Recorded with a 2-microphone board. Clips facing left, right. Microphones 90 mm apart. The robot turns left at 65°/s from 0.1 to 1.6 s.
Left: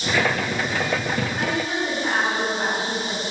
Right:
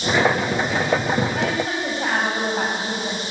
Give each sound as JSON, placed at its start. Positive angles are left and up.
{"t": 1.4, "sound": "a woman speaking", "side_deg": -85, "distance_m": 6.0}